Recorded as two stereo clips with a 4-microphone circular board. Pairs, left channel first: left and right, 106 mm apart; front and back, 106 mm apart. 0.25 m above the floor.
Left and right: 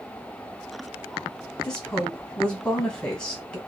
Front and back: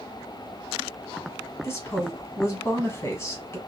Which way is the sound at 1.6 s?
20° left.